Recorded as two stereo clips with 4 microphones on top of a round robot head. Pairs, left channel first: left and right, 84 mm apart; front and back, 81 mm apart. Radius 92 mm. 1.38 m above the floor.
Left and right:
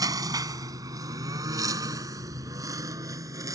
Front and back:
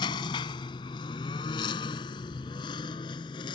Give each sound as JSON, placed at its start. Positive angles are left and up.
{"t": 0.0, "sound": "a lawn mower", "azimuth_deg": -45}